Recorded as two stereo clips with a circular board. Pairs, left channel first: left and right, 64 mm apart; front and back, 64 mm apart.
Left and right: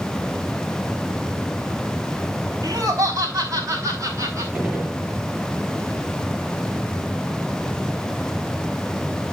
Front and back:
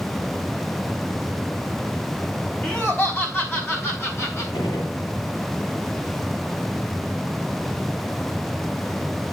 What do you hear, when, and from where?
2.6 s laughter: 60° right, 4.5 m; by 4.4 s 50° right, 5 m
4.5 s a gunshot: 10° right, 7 m